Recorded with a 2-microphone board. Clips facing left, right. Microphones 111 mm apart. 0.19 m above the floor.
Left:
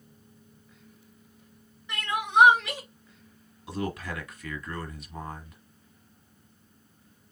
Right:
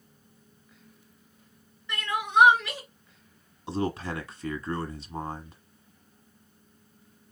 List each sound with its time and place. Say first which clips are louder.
1.9 s crying: even; 15° left (ahead or behind), 2.5 m
3.7 s a man speaking: right 3 dB; 30° right (ahead or behind), 1.2 m